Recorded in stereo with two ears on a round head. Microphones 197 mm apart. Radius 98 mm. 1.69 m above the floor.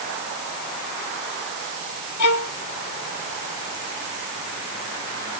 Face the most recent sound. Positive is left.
turn(degrees=75)  # may be behind; listen again after turning